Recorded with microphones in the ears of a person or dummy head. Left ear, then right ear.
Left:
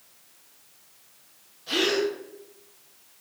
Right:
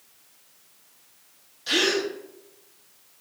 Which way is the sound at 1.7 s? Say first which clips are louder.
Right 1 dB; 55° right (ahead or behind).